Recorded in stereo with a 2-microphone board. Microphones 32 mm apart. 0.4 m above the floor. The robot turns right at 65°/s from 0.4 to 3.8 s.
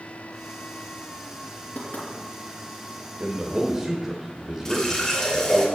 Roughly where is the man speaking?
Ahead right.